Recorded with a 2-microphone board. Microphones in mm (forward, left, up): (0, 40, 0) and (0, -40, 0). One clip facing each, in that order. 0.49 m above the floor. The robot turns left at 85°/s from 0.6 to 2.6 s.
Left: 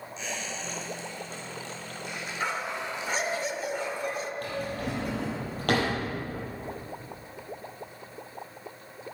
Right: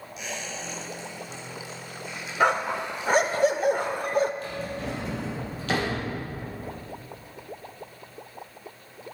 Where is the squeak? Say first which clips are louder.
Right 1 dB; 10° right (ahead or behind), 3 m; by 3.4 s 20° left (ahead or behind), 3 m.